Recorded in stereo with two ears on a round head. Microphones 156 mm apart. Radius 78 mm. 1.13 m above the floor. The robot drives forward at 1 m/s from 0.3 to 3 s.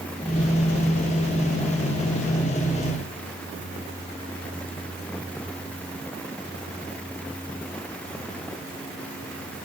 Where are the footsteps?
No footsteps in this recording.